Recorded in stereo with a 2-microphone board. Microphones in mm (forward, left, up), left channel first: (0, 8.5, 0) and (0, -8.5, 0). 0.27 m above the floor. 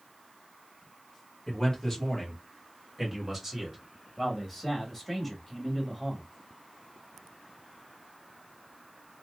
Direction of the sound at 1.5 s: 25° left (ahead or behind).